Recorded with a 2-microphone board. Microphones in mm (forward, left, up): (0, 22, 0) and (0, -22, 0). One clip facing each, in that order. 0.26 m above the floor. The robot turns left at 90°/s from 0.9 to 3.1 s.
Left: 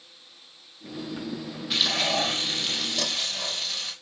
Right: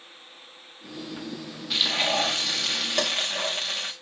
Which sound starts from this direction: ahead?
Frying, at 1.7 s.